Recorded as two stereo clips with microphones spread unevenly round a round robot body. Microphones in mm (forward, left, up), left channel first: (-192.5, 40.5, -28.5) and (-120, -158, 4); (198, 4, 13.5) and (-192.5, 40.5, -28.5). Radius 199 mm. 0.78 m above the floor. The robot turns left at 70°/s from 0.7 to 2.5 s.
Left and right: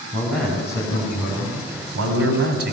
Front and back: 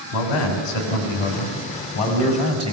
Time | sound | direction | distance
0.1 | a man speaking | 15° left | 5 m